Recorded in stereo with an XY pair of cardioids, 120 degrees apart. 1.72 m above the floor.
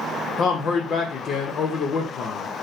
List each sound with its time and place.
0.4 s a man speaking: 55° left, 0.7 m